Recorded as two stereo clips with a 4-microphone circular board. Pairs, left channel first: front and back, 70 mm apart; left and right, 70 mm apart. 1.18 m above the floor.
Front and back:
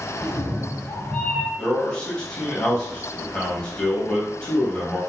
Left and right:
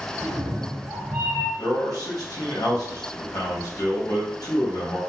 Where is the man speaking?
75° left, 1.1 m.